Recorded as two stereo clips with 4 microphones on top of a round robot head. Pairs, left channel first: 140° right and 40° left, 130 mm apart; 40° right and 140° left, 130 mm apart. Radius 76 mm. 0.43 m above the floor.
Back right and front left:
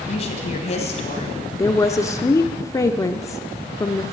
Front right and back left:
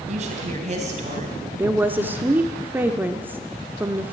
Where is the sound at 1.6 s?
160° right, 0.8 m.